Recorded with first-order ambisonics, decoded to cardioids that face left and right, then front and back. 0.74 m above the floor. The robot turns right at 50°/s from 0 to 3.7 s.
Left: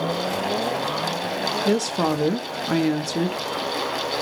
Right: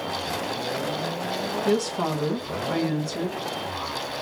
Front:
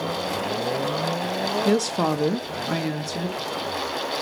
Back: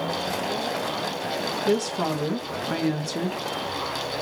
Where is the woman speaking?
30° left, 1.0 m; by 3.4 s 120° left, 1.0 m.